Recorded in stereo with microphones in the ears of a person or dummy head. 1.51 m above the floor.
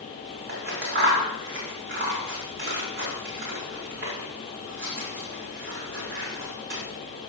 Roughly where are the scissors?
Right.